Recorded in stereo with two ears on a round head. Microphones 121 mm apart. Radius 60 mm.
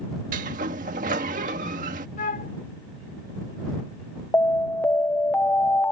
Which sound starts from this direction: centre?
An alarm, at 4.3 s.